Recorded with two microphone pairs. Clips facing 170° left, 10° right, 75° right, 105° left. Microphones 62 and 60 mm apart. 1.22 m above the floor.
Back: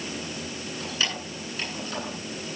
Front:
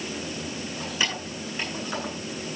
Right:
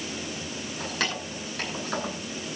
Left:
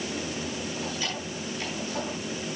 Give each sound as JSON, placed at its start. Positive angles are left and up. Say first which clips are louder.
{"t": 0.8, "sound": "keys jangling", "louder": "front 1 dB, right 2 dB", "azimuth_deg": -80, "distance_m": 10.0}